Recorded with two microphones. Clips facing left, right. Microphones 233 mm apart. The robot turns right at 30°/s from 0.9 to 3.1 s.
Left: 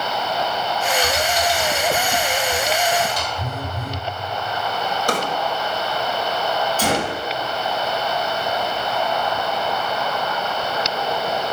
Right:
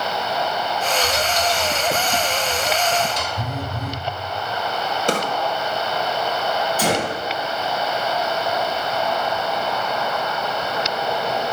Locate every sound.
1.0 s typing on a keyboard: 85° right, 3.5 m; by 3.3 s 25° right (ahead or behind), 3.5 m
3.4 s a phone buzzing: 80° right, 1.3 m
5.1 s a drawer: 25° right (ahead or behind), 1.5 m
6.8 s a gunshot: 10° right (ahead or behind), 4.5 m